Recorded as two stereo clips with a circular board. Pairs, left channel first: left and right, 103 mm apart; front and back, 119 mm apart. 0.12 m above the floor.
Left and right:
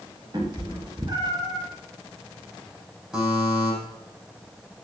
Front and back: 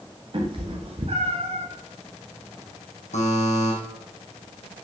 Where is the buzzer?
10° right, 6 m.